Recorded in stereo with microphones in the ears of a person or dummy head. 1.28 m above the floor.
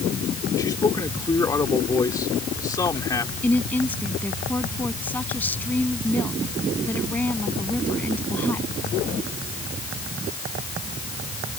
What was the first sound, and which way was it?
A man speaking, 20° left (ahead or behind).